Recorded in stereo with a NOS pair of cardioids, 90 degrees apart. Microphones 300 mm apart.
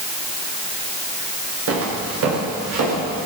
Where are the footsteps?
50° right, 9.5 m; by 3.3 s 65° right, 10 m.